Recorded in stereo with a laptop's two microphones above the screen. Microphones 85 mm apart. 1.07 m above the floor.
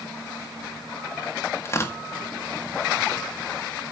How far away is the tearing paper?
About 1.7 m.